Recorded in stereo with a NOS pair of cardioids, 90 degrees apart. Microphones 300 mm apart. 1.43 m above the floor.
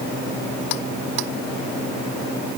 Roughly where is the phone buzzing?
No phone buzzing in this recording.